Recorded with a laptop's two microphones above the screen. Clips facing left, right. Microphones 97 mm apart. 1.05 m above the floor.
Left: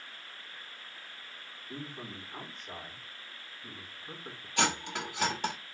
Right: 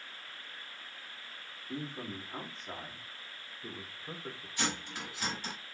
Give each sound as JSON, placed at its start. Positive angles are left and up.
{"t": 1.7, "sound": "a man speaking", "side_deg": -20, "distance_m": 1.9}
{"t": 4.6, "sound": "cutlery clinking", "side_deg": 70, "distance_m": 1.0}